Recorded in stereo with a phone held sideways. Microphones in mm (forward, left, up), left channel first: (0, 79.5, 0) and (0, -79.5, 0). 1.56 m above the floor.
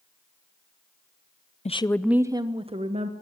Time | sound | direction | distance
1.6 | a woman speaking | 45° left (ahead or behind) | 0.5 m